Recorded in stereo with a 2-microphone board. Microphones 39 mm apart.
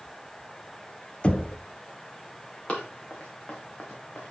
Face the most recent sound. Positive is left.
turn(degrees=45)  # may be behind; listen again after turning